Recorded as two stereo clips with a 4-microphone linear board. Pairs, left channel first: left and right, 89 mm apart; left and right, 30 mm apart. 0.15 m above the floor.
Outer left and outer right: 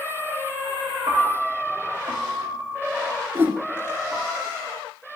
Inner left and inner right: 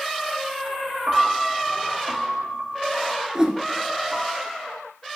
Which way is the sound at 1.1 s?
50° right (ahead or behind).